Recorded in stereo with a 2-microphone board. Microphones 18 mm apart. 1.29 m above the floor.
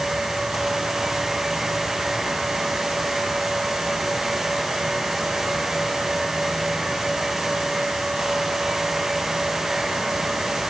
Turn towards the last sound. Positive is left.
No sound to turn to.